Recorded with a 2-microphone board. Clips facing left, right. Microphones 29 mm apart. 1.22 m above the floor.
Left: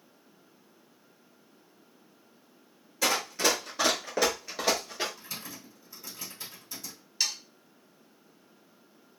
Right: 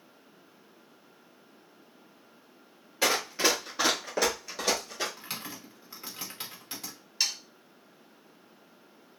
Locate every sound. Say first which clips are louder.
3.0 s running footsteps: right 1 dB; 35° right (ahead or behind), 1.4 m; by 5.1 s 20° left (ahead or behind), 1.5 m
5.2 s typing on a keyboard: right 2 dB; 70° right (ahead or behind), 0.9 m
7.2 s sawing: even; 10° right (ahead or behind), 1.2 m